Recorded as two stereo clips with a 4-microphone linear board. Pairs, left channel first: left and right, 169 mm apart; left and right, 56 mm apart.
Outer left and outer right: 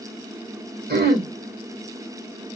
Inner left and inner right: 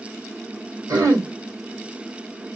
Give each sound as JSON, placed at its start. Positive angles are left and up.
{"t": 0.9, "sound": "throat clearing", "side_deg": -70, "distance_m": 2.0}